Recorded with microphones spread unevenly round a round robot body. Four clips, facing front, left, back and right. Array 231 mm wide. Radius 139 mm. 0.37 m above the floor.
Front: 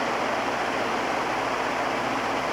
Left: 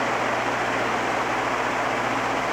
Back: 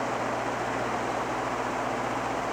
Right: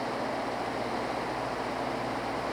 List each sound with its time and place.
Only background noise.